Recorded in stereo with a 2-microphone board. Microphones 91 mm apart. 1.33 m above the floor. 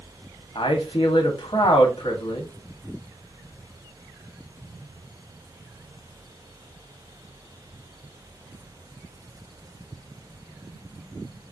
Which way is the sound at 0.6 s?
70° left (ahead or behind).